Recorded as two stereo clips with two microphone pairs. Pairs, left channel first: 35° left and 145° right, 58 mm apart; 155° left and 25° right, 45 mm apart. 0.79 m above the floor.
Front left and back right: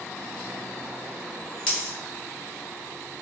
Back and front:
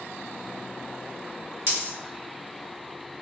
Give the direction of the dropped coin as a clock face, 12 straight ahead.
1 o'clock.